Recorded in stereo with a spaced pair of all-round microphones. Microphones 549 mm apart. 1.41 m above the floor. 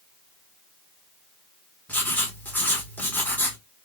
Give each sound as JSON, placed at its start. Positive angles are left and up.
{"t": 1.9, "sound": "writing", "side_deg": 5, "distance_m": 1.6}